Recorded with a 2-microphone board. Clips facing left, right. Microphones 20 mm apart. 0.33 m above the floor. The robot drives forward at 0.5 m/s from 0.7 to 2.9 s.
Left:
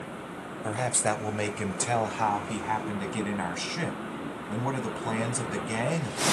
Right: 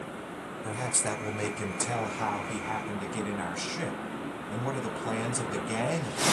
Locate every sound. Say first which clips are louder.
0.6 s a man speaking: left 4 dB; 25° left (ahead or behind), 0.9 m; by 6.2 s 15° left (ahead or behind), 1.4 m